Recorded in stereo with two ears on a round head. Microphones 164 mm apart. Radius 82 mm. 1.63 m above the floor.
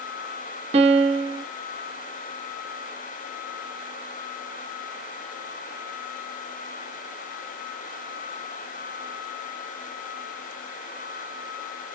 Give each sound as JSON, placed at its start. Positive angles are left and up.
{"t": 0.7, "sound": "a piano", "side_deg": -35, "distance_m": 0.7}